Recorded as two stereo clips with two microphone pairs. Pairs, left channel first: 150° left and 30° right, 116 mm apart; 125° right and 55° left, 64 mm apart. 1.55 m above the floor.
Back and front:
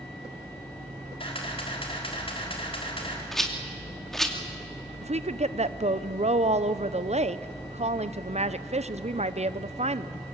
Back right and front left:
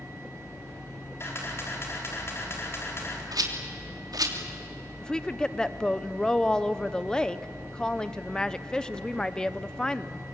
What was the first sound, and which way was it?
A camera shutter, 170° right.